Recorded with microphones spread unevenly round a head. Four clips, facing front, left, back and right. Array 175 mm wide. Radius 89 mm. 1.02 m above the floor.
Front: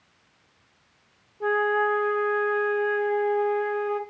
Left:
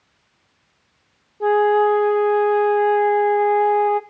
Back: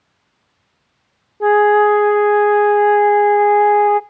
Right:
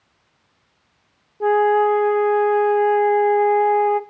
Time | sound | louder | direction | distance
1.4 | a flute | even, back 12 dB | 165° right | 0.8 m